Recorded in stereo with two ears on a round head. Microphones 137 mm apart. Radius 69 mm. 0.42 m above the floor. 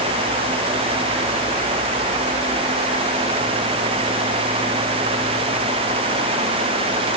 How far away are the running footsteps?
No running footsteps in this recording.